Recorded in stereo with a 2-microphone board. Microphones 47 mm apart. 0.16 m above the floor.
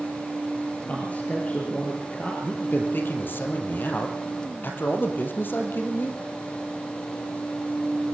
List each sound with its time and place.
0.9 s a man speaking: 40° left (ahead or behind), 3 m
2.4 s a man speaking: 50° left (ahead or behind), 3.5 m